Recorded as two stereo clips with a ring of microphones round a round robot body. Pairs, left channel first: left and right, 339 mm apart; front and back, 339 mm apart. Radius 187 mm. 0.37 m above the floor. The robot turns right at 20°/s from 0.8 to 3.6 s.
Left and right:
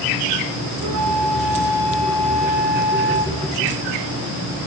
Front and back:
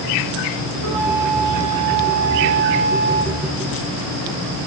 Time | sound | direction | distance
0.8 | a flute | 150° right | 3 m